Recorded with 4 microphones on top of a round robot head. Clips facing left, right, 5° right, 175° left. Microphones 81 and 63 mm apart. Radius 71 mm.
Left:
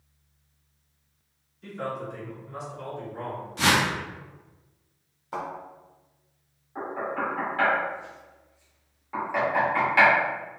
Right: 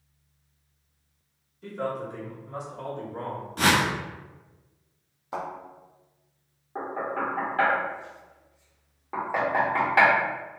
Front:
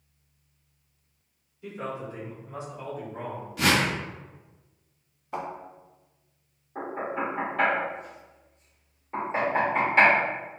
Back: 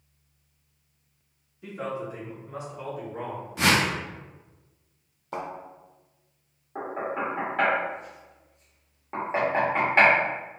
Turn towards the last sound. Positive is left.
turn(degrees=-130)